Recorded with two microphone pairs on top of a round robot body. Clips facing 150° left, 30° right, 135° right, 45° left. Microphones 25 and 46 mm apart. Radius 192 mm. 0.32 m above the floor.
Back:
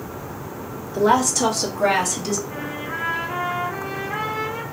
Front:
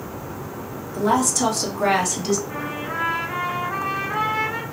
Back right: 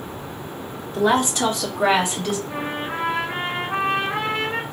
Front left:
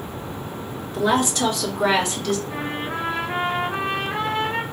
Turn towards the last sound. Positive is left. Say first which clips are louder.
# front 1 dB, even
turn(degrees=-85)